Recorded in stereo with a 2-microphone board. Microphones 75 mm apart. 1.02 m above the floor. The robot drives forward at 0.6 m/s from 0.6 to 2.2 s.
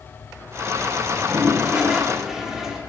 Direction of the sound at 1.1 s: 15° right (ahead or behind).